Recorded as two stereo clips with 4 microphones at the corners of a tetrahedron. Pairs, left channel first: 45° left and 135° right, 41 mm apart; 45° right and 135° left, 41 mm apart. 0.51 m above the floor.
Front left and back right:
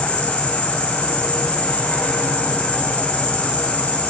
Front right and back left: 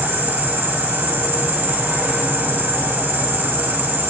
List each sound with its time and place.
0.0 s an insect: 100° left, 3.5 m